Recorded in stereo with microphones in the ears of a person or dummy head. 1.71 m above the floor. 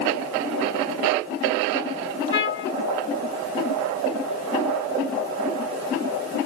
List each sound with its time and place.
2.3 s a trumpet: 30° left (ahead or behind), 1.3 m